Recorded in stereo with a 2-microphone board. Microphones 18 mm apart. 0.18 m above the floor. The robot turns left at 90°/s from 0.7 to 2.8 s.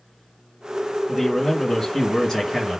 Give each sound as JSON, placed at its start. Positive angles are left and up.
{"t": 1.1, "sound": "a man speaking", "side_deg": 5, "distance_m": 1.1}